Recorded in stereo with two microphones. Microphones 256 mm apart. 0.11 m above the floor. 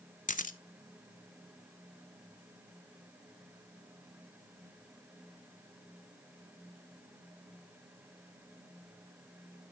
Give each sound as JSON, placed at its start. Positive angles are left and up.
{"t": 0.3, "sound": "a camera shutter", "side_deg": 30, "distance_m": 0.5}